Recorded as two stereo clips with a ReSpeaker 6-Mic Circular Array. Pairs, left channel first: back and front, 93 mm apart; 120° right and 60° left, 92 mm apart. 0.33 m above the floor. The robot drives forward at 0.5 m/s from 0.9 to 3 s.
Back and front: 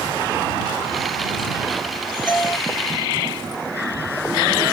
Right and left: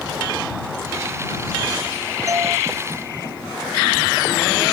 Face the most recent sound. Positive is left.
turn(degrees=115)